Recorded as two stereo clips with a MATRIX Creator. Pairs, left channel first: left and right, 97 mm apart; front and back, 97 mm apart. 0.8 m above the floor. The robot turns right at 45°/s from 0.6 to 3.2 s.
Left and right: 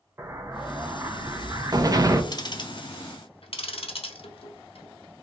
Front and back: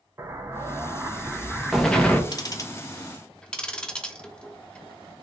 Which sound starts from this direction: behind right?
An explosion, at 0.2 s.